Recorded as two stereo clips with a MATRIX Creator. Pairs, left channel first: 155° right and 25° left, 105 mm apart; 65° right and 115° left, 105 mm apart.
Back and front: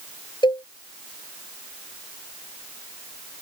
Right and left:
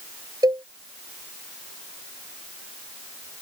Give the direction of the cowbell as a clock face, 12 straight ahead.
7 o'clock.